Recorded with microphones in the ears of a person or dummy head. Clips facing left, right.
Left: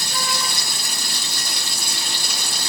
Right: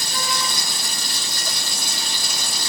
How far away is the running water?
About 1.6 m.